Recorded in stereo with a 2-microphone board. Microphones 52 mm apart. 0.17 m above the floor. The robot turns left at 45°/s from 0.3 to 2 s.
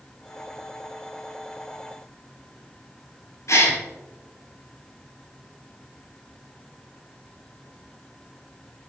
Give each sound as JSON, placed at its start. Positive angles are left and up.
{"t": 3.5, "sound": "a gasp", "side_deg": 70, "distance_m": 2.5}